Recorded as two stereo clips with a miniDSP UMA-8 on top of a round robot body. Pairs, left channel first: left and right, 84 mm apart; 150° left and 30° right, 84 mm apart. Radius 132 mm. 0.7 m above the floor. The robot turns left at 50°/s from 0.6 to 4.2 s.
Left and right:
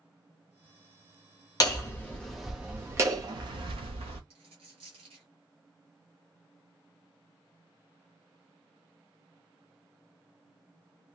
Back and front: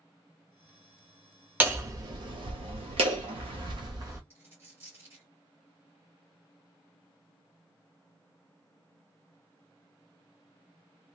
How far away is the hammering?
About 0.7 m.